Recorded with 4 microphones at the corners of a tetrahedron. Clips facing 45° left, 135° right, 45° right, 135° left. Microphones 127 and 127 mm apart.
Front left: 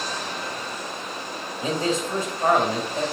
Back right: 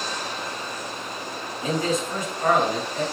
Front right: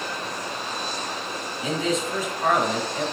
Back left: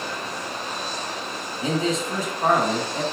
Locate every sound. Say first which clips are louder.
1.6 s a man speaking: even, back left 2 dB; 95° left, 1.6 m